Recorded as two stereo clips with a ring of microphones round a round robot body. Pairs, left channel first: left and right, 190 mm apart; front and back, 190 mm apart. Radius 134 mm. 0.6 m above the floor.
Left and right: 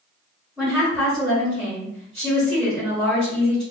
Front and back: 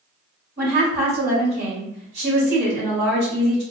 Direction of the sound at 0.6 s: 175° right.